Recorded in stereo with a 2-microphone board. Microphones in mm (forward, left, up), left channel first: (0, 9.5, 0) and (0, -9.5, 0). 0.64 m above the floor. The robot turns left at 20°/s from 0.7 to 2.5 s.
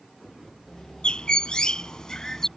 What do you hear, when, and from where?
1.0 s a bird: 55° left (ahead or behind); by 2.5 s 30° left (ahead or behind)